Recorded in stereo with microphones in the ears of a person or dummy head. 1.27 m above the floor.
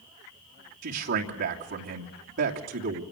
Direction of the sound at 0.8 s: 55° right (ahead or behind).